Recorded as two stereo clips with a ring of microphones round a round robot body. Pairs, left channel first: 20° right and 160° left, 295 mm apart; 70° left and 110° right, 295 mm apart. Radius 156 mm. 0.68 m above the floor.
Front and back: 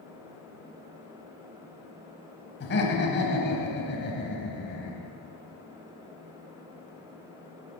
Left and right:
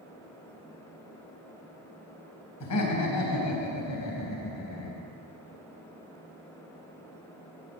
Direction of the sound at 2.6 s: 30° left.